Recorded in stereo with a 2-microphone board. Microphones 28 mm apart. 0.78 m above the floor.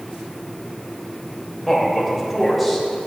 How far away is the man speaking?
About 3.5 m.